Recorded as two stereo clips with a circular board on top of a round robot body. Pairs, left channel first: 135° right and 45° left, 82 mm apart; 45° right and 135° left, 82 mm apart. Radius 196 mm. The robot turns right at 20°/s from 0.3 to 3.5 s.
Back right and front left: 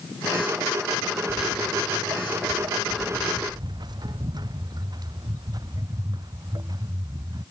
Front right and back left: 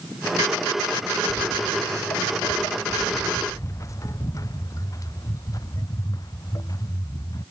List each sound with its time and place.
1.3 s footsteps: 5° right; by 7.4 s straight ahead